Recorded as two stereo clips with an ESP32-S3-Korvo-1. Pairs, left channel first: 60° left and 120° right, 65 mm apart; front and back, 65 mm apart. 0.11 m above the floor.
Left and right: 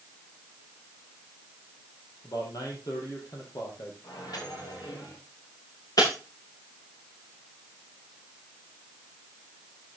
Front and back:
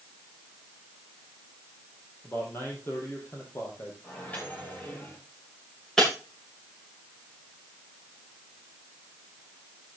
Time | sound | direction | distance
2.2 | a man speaking | 55° left | 5 m
4.0 | a microwave | 65° left | 10 m
6.0 | breaking glass | 80° left | 9.5 m